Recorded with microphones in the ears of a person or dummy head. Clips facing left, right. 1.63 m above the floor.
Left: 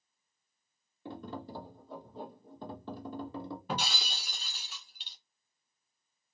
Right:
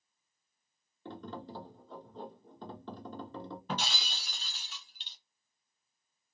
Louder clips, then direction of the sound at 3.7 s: Even; 10° left (ahead or behind).